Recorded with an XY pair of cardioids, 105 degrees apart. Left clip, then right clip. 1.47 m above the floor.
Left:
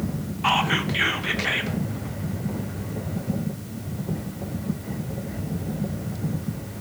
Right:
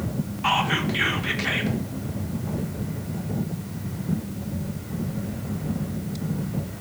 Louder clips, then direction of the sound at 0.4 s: Left 1 dB; 10° left.